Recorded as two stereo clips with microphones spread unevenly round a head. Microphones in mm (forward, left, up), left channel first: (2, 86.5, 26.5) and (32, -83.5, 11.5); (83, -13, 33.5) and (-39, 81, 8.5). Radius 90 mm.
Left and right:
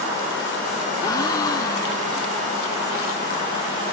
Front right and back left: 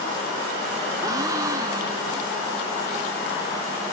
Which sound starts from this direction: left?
A gasp, at 1.0 s.